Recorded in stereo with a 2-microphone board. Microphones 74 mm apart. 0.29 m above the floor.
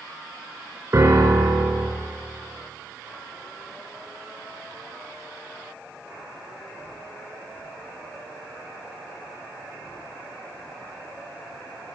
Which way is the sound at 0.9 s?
40° right (ahead or behind).